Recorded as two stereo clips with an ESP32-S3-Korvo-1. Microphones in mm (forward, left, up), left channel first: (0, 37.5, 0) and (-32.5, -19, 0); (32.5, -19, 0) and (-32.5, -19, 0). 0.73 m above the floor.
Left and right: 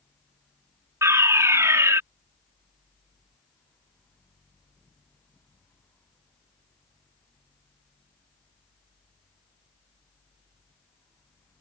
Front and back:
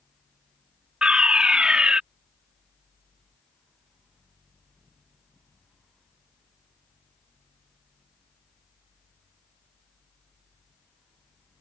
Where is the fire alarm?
110° right.